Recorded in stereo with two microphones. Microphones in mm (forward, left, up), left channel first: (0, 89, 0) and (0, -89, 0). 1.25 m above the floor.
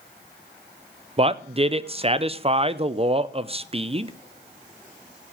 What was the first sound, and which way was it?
A man speaking, 35° right (ahead or behind).